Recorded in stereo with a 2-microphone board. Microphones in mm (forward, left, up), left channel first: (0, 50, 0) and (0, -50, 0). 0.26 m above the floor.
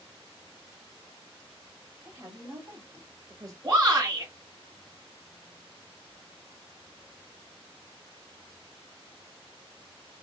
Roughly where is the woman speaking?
Right.